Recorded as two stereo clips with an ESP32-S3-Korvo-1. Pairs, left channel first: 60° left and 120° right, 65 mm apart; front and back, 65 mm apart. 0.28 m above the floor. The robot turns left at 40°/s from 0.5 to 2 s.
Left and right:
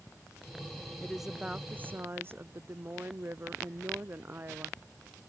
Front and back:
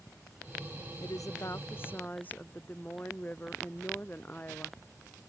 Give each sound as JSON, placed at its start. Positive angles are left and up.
{"t": 1.0, "sound": "a woman speaking", "azimuth_deg": -25}